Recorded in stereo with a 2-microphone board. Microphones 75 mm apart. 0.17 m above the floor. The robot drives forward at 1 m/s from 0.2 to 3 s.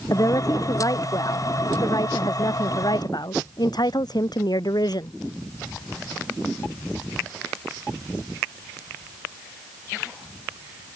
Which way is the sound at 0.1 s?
50° left (ahead or behind).